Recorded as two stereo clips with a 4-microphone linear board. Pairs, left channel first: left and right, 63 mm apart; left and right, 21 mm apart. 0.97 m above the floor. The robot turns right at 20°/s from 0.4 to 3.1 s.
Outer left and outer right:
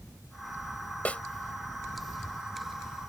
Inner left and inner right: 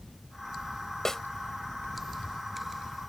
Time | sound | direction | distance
1.1 | a snare drum | 25° left (ahead or behind) | ?